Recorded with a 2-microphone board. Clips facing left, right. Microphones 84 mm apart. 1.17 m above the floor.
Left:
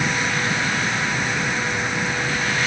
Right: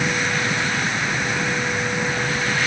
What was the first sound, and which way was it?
Only background noise.